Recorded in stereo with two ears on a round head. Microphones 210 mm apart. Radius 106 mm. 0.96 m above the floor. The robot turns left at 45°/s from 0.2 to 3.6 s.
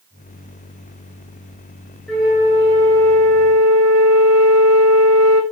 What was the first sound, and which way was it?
A flute, straight ahead.